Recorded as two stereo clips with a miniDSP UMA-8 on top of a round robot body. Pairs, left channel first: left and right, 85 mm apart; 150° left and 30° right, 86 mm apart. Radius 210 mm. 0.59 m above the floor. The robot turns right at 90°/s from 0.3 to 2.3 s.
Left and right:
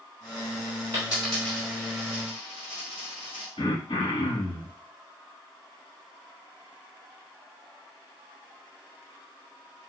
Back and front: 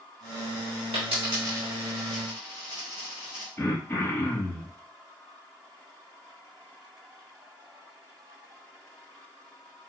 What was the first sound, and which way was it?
A dropped coin, 30° right.